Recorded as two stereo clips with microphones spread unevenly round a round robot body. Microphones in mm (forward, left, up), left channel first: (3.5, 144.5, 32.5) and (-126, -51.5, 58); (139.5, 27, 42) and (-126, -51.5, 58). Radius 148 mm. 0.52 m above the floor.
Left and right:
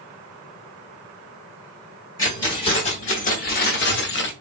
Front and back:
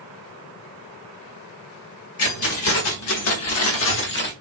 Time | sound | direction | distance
2.2 | keys jangling | 15° right | 1.1 m